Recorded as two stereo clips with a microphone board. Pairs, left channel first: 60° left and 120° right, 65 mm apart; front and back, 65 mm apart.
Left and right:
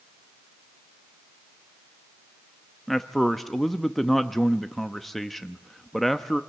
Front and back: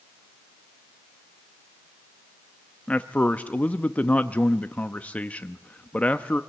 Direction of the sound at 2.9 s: 20° right.